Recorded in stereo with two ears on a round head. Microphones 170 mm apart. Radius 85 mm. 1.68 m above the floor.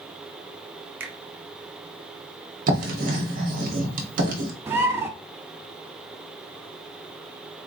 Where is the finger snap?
10° right (ahead or behind), 0.8 m.